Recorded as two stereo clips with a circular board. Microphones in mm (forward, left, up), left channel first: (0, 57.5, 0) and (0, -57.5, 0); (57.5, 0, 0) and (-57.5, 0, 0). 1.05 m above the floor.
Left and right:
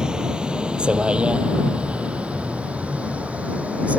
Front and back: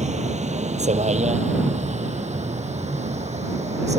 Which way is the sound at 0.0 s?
175° right.